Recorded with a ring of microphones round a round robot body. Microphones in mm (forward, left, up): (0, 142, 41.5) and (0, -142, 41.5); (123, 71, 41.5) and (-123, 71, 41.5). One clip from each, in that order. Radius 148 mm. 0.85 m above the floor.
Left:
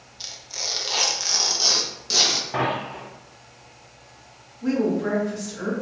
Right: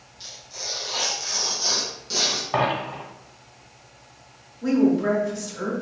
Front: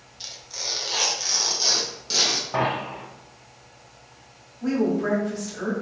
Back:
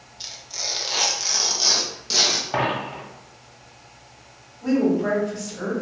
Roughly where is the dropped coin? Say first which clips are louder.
Right 2 dB, back 1 dB; behind right.